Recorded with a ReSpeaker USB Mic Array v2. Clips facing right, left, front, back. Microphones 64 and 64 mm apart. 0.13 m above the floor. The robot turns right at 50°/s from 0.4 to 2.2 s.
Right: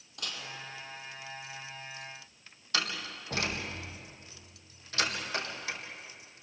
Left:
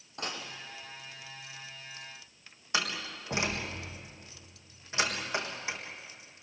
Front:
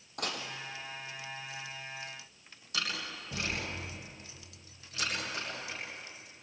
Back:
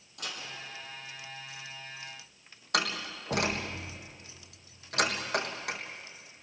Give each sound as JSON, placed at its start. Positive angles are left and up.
{"t": 0.2, "sound": "dishes clattering", "azimuth_deg": 35, "distance_m": 3.0}
{"t": 2.7, "sound": "a door slam", "azimuth_deg": 160, "distance_m": 3.5}